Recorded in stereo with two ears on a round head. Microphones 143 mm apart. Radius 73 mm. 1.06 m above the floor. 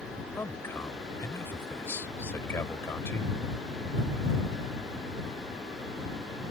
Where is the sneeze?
I don't hear a sneeze.